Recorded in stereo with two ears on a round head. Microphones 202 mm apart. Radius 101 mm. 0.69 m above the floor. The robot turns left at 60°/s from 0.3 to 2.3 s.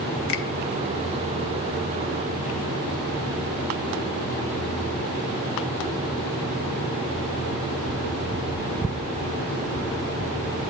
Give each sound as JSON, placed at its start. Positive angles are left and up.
{"t": 0.3, "sound": "a finger snap", "side_deg": 65, "distance_m": 2.5}